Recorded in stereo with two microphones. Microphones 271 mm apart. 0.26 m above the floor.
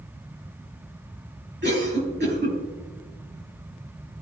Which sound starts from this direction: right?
A cough, at 1.6 s.